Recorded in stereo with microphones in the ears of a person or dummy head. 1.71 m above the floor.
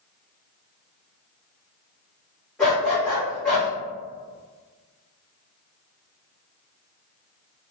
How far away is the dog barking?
About 1.2 m.